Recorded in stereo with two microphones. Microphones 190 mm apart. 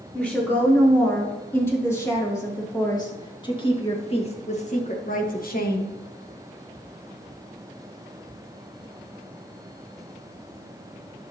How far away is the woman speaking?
About 3.5 m.